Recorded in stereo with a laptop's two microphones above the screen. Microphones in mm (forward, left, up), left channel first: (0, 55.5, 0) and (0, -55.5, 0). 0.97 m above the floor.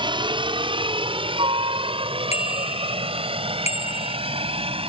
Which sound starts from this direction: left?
A bicycle bell, at 2.3 s.